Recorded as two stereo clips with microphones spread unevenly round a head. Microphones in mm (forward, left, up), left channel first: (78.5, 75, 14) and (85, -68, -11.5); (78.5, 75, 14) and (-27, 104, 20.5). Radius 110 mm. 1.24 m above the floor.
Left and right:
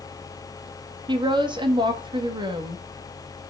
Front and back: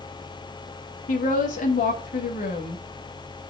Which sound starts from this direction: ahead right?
A woman speaking, at 1.1 s.